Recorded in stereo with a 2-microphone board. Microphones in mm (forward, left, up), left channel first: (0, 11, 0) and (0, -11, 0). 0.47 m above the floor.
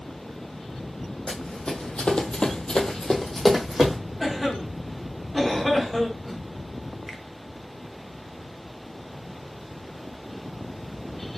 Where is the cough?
5° right (ahead or behind), 0.9 m.